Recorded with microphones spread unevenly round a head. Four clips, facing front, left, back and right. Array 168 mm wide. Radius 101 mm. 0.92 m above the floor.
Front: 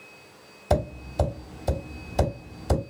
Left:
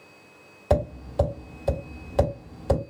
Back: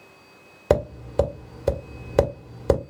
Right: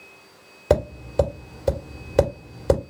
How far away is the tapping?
About 2 m.